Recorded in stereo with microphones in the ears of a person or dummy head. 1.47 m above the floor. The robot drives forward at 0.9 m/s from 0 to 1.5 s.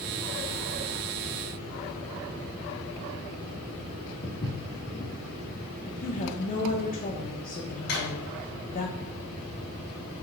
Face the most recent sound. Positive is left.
turn(degrees=65)  # may be behind; listen again after turning